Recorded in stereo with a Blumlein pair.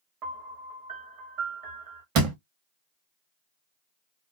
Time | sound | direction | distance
0.2 | a piano | 40° right | 1.2 m
2.1 | a door slam | 40° right | 1.2 m